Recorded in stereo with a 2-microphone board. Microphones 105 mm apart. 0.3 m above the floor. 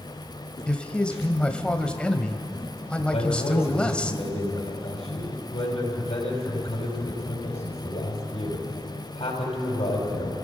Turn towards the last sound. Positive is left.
turn(degrees=70)  # may be behind; listen again after turning